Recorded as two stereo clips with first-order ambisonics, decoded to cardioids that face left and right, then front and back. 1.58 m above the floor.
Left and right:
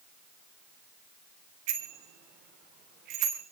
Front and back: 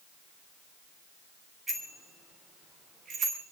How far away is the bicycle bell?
About 3 m.